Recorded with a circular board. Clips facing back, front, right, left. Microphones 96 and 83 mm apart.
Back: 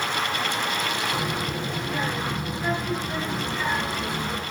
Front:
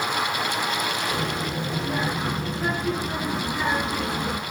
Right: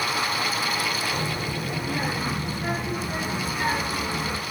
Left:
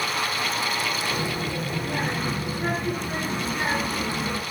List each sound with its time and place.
1.1 s a child speaking: 50° left, 4 m; by 4.4 s 65° left, 2.5 m